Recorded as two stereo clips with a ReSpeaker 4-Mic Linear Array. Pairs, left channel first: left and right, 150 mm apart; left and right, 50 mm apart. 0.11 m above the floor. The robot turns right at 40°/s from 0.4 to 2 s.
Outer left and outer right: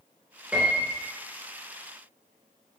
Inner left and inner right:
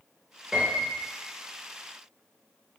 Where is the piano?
10° right (ahead or behind), 1.1 m; by 1.0 s 15° right (ahead or behind), 1.1 m.